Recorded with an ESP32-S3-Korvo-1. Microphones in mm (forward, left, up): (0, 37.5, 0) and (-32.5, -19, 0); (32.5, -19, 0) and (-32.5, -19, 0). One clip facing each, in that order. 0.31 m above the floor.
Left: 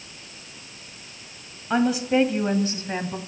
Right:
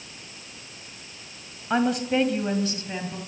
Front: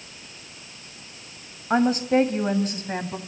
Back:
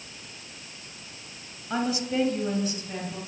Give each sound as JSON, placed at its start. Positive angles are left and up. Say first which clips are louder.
{"t": 1.7, "sound": "a woman speaking", "louder": "left 2 dB, front 8 dB", "azimuth_deg": -35, "distance_m": 1.9}